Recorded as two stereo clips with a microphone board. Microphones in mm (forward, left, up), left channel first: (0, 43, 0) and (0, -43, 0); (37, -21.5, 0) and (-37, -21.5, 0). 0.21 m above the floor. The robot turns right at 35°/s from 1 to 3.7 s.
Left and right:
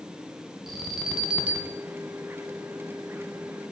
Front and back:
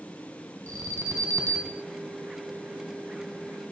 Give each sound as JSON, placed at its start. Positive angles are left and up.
{"t": 0.7, "sound": "an alarm", "azimuth_deg": -175, "distance_m": 2.0}